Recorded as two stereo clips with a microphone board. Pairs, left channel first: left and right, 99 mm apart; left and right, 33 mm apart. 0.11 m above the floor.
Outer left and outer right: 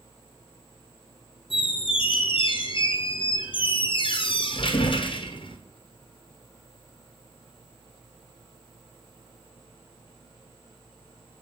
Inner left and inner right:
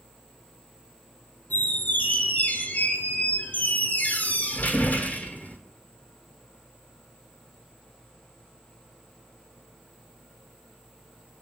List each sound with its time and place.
1.5 s a squeak: 60° left (ahead or behind), 0.7 m